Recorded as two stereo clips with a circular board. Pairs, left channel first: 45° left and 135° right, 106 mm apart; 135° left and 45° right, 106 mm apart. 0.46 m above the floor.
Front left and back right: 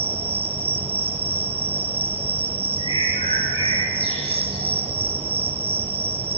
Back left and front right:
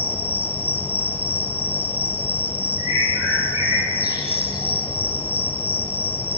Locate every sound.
0.0 s an insect: 155° right, 2.5 m
2.8 s a bird: 20° left, 8.5 m